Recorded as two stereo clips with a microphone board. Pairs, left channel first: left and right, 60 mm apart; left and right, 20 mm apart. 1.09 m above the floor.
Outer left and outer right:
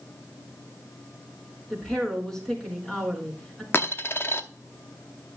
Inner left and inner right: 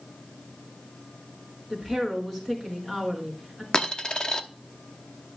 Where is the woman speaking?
10° left (ahead or behind), 4.5 m.